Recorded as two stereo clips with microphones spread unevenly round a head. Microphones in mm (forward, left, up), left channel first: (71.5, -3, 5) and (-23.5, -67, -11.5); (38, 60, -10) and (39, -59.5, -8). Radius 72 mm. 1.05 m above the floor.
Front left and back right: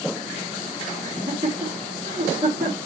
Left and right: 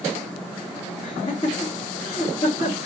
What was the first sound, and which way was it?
Laughter, 150° left.